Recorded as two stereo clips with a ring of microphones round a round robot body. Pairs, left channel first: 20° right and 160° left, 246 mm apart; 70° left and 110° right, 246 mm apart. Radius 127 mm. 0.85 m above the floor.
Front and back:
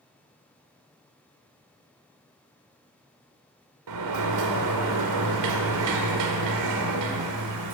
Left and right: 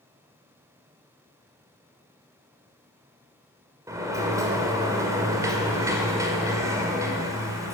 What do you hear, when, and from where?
3.9 s a sliding door: 170° left, 1.9 m